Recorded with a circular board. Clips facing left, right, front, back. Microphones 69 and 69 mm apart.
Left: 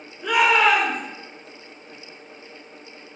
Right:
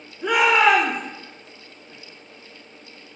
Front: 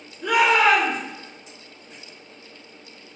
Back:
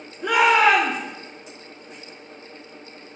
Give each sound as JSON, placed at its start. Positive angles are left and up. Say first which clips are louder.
{"t": 0.2, "sound": "a shout", "louder": "right 1 dB, back 1 dB", "azimuth_deg": -160, "distance_m": 1.8}